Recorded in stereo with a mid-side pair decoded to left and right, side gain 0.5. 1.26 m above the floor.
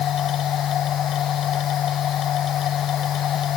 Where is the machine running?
60° left.